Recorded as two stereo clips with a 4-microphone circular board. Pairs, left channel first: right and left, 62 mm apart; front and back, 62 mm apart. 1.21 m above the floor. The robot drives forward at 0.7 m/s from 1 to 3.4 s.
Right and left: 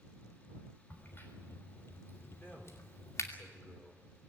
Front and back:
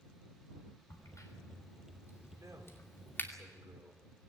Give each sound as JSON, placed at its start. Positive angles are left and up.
{"t": 0.9, "sound": "a crack", "azimuth_deg": -35, "distance_m": 3.5}
{"t": 2.4, "sound": "a man speaking", "azimuth_deg": -145, "distance_m": 4.5}